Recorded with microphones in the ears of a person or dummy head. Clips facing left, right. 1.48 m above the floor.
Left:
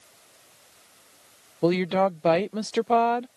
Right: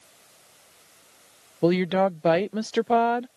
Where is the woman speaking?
5° right (ahead or behind).